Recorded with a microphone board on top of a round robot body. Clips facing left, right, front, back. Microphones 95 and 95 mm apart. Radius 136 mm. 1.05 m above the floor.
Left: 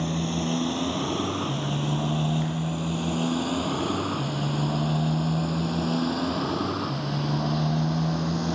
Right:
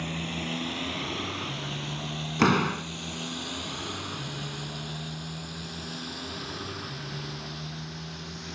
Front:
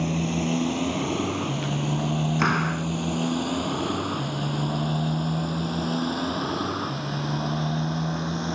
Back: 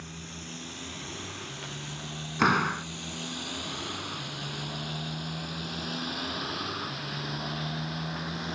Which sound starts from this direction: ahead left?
A motorcycle, at 0.0 s.